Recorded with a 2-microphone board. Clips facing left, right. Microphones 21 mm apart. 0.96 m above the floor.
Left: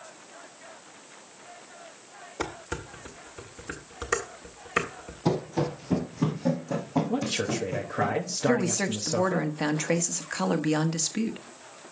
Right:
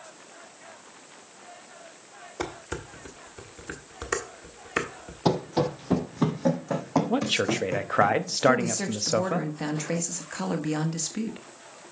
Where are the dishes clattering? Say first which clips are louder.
Even; 5° right (ahead or behind), 1.3 m.